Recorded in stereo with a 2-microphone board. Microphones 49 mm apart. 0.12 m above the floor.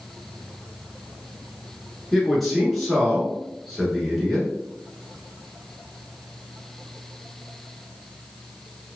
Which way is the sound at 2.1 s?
Centre (ahead or behind).